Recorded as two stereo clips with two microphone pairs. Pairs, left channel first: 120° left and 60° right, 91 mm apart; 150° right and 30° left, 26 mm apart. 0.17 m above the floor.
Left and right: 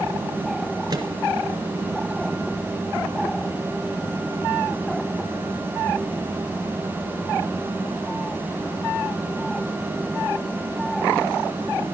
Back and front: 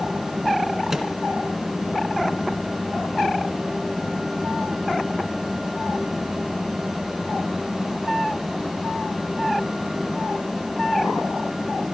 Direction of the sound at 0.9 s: 40° right.